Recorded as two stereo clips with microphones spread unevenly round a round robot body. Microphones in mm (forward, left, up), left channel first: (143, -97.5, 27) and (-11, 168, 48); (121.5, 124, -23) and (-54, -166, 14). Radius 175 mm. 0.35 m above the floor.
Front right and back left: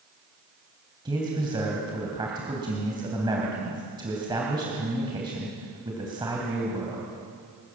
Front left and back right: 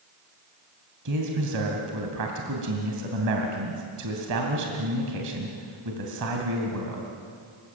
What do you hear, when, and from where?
1.1 s a man speaking: 165° right, 3 m